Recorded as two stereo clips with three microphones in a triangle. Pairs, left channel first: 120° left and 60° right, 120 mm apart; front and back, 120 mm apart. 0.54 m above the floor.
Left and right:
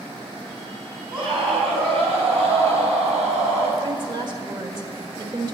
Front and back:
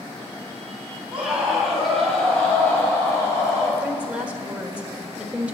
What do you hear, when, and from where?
1.1 s a scream: 95° right, 4 m; by 3.7 s 60° right, 4 m
3.8 s a woman speaking: 100° right, 1.4 m